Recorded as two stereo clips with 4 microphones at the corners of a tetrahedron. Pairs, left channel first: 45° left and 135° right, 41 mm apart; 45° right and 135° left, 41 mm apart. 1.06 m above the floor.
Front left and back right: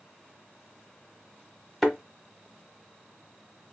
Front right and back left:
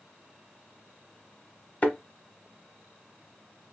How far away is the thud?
About 1.0 m.